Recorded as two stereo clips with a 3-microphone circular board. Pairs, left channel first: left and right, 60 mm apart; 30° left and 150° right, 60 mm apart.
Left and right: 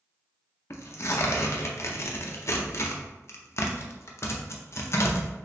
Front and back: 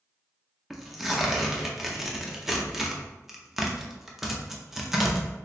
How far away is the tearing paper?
About 0.5 m.